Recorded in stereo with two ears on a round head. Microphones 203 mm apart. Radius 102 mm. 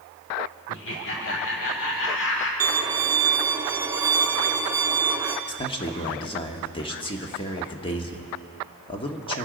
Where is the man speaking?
25° left (ahead or behind), 1.2 m.